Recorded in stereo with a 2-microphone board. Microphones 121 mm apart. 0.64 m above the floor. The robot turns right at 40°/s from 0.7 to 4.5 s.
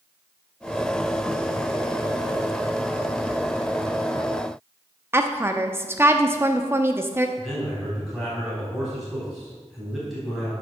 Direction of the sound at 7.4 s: Centre (ahead or behind).